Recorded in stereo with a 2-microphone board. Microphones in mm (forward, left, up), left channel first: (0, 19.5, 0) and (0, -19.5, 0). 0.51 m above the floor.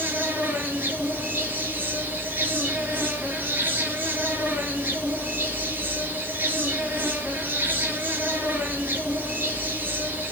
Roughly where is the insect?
Right.